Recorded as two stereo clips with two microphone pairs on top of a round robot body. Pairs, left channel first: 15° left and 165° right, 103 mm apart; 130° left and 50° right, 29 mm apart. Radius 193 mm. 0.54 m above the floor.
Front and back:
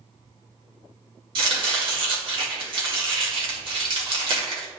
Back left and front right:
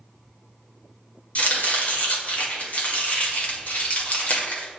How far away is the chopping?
About 2 m.